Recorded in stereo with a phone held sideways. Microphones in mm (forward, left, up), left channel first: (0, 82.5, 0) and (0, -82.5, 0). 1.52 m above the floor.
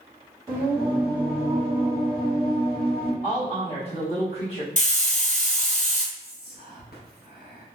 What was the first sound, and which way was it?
Singing, 10° right (ahead or behind).